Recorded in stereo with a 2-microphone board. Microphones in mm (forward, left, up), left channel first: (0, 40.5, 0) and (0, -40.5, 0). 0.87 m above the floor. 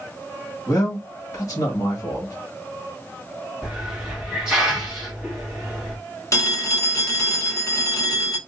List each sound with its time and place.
0.7 s a man speaking: 40° left (ahead or behind), 1.5 m
3.6 s a hiss: 5° right (ahead or behind), 1.3 m
6.3 s a phone ringing: 40° left (ahead or behind), 0.8 m